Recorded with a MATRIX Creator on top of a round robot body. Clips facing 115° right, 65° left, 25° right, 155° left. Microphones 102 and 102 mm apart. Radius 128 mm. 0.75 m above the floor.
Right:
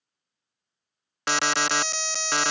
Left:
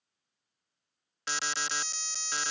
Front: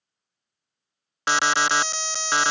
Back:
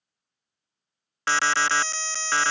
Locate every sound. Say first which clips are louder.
1.3 s an alarm: right 11 dB, front 2 dB; 95° right